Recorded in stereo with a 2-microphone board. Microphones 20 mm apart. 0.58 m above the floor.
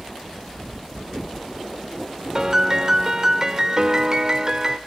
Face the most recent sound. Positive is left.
turn(degrees=-30)  # may be behind; listen again after turning